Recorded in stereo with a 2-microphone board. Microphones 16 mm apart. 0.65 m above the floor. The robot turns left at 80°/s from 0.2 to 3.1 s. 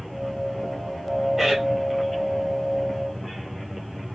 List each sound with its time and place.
1.4 s a man speaking: 25° right (ahead or behind), 1.9 m; by 1.6 s 45° right (ahead or behind), 1.9 m